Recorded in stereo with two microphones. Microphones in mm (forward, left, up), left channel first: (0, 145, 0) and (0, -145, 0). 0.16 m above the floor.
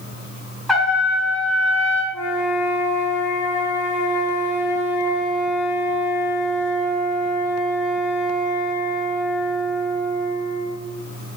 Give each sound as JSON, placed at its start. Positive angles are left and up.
{"t": 0.7, "sound": "a trumpet", "side_deg": 0, "distance_m": 2.0}
{"t": 2.1, "sound": "a flute", "side_deg": 80, "distance_m": 3.0}